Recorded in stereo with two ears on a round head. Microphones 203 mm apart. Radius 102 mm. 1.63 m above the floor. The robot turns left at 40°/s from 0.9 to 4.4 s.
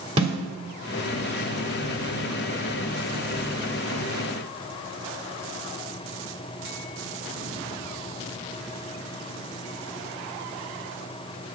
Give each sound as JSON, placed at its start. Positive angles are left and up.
{"t": 0.2, "sound": "a snare drum", "side_deg": -25, "distance_m": 1.5}